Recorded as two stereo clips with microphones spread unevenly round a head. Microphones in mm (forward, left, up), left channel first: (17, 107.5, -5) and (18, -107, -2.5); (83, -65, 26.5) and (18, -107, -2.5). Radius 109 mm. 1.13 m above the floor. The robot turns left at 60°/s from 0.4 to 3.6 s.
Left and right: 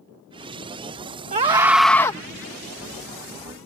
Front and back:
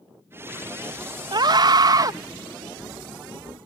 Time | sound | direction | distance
1.3 | a scream | 150° right | ?